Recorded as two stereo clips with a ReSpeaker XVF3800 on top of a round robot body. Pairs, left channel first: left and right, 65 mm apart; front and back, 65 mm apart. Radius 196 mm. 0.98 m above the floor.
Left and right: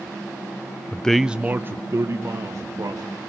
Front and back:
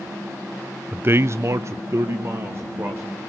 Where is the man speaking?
135° left, 0.8 m; by 3.2 s 130° right, 3 m.